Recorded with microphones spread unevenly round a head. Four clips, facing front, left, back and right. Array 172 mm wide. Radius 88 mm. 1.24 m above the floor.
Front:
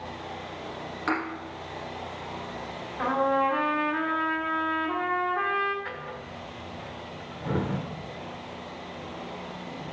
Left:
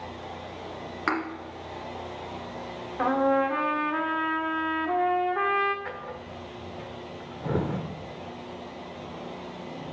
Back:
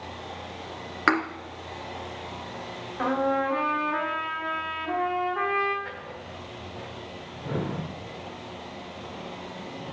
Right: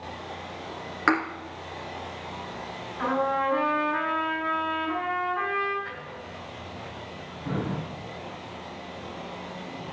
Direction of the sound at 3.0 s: 110° left.